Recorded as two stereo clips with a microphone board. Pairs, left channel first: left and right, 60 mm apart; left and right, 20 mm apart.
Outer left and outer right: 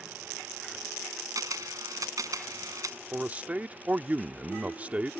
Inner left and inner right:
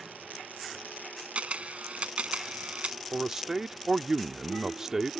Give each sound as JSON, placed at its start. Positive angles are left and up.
{"t": 1.4, "sound": "a camera shutter", "side_deg": -75}
{"t": 3.1, "sound": "a man speaking", "side_deg": -25}